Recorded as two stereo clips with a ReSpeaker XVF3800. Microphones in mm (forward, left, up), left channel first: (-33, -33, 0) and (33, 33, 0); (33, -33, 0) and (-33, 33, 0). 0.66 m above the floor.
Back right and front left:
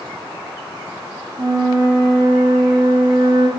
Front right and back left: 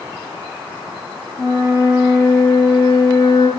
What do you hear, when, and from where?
1.4 s a flute: 5° left, 4 m